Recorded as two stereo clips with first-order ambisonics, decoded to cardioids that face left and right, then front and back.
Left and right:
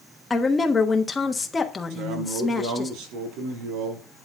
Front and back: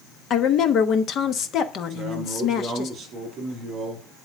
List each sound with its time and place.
0.3 s a woman speaking: 20° left, 1.1 m
1.9 s a man speaking: 125° right, 7.5 m